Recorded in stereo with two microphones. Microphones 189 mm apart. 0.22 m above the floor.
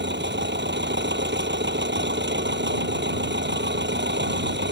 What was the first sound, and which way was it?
An engine running, 70° right (ahead or behind).